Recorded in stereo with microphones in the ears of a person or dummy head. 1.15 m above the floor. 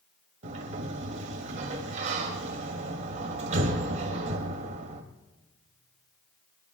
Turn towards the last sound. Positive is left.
turn(degrees=-40)  # may be behind; listen again after turning